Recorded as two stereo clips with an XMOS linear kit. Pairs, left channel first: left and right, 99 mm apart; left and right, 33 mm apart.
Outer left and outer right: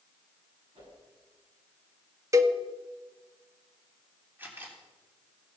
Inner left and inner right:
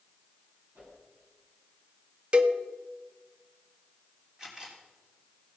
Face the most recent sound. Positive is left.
turn(degrees=-20)  # may be behind; listen again after turning